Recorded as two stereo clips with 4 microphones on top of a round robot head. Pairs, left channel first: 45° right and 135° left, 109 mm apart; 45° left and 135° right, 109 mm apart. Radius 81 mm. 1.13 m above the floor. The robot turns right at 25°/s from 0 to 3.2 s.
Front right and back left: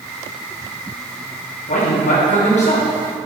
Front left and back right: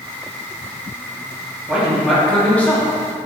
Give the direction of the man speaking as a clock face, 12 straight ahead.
2 o'clock.